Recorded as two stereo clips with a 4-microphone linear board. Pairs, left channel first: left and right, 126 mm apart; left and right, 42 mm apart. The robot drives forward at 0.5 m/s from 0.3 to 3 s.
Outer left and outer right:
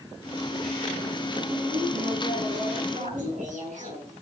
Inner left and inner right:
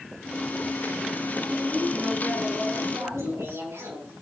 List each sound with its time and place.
1.5 s a woman speaking: 90° right, 8 m; by 3.5 s 85° right, 8 m
3.0 s laughter: 85° right, 7.5 m